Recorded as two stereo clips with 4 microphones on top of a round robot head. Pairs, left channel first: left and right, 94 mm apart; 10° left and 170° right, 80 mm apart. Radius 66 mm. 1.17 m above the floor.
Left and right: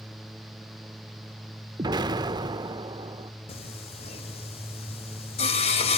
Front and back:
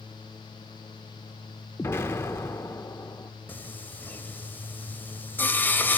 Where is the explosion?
50° right, 1.4 m.